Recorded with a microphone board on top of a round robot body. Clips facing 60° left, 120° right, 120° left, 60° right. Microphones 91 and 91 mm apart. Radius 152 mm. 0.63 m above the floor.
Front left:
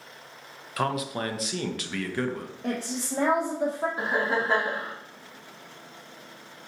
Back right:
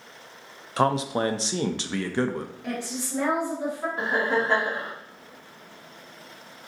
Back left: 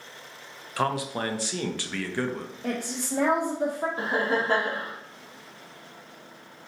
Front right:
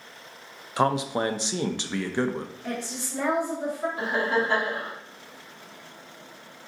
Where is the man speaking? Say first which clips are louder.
Back right 5 dB, front right 4 dB; 105° right, 0.5 m.